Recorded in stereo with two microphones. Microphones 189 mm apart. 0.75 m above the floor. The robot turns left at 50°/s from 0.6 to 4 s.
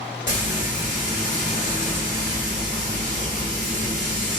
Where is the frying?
80° left, 1.5 m; by 4.4 s 90° right, 1.5 m.